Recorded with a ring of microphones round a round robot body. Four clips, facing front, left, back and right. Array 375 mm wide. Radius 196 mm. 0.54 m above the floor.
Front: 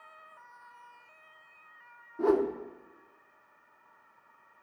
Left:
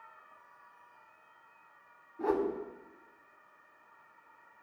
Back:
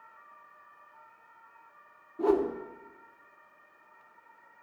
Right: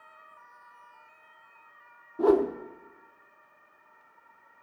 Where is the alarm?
I don't hear an alarm.